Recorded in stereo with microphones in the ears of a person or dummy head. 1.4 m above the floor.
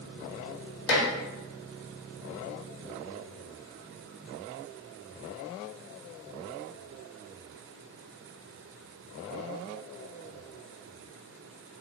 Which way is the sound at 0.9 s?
65° left (ahead or behind).